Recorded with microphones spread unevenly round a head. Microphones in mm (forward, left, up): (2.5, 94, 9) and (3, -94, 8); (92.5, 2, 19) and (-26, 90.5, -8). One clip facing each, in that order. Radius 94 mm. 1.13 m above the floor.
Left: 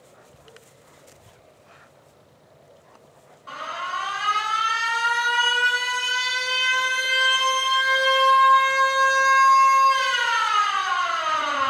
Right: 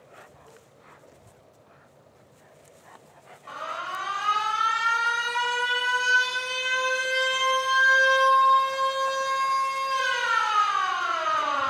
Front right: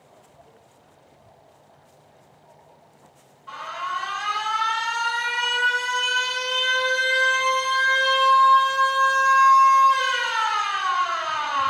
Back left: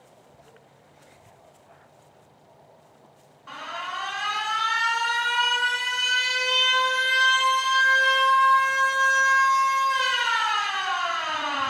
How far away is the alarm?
About 2 m.